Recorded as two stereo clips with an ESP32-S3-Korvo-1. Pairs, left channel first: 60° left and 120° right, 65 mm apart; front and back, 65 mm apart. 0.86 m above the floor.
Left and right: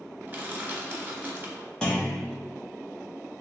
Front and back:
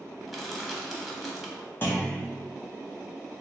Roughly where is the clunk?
Ahead.